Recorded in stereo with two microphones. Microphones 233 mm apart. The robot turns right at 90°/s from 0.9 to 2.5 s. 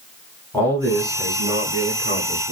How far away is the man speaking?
About 1.5 m.